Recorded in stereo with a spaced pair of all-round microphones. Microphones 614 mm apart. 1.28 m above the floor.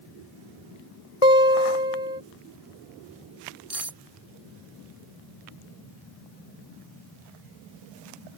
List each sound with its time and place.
1.2 s a guitar: 70° left (ahead or behind)
3.7 s cutlery clinking: 25° right (ahead or behind)